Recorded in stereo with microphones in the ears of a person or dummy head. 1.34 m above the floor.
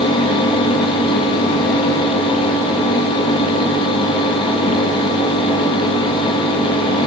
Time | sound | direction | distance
0.0 | a fan | 30° left (ahead or behind) | 1.1 m